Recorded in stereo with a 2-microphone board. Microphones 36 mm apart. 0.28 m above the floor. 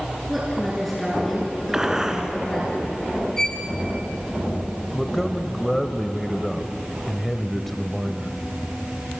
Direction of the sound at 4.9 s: Centre (ahead or behind).